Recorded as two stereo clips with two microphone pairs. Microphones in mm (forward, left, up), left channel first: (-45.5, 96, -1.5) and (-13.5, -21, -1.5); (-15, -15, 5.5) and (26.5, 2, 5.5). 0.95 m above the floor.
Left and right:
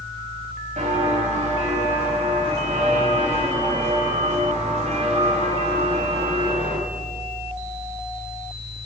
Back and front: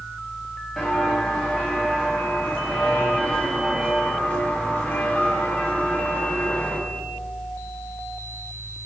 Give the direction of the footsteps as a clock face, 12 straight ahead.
2 o'clock.